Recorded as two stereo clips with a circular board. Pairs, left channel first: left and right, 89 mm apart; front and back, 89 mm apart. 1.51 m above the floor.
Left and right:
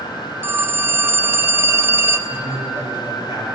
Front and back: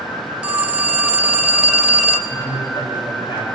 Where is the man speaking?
45° right, 8 m.